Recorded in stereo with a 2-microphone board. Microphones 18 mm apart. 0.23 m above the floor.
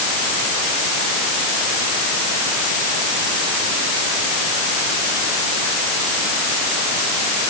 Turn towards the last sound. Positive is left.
No sound to turn to.